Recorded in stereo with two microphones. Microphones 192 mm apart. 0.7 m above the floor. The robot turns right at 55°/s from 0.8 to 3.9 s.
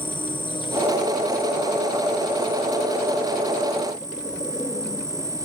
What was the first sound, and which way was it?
An insect, 30° left.